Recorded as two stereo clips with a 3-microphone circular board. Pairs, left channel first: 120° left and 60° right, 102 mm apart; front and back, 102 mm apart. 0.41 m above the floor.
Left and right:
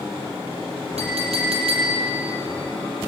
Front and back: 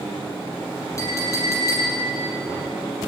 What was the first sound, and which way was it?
A clink, 60° right.